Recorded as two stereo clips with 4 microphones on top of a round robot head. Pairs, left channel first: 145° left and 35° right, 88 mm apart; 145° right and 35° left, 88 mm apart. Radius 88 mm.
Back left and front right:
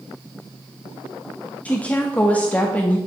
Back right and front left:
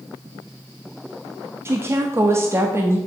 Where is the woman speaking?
80° left, 1.2 m.